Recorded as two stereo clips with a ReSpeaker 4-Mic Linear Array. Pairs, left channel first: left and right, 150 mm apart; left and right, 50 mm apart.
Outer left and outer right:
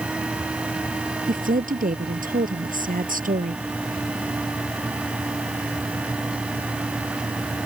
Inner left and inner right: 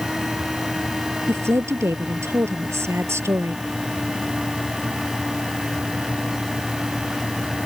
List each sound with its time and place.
1.3 s a woman speaking: 70° right (ahead or behind)